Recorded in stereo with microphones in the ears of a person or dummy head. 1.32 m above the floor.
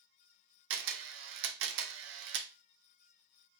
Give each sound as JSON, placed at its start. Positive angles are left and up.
{"t": 0.7, "sound": "a camera shutter", "side_deg": -70, "distance_m": 0.8}